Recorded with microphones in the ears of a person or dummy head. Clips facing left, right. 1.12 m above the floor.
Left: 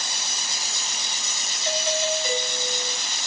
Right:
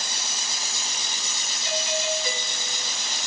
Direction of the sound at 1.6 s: 50° left (ahead or behind).